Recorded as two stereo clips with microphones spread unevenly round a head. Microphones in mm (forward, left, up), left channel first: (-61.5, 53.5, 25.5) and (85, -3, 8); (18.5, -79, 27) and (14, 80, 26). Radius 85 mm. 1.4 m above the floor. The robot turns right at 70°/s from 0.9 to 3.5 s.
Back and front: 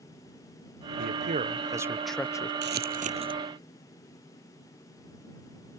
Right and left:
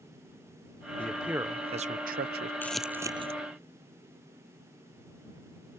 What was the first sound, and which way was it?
A man speaking, 10° right.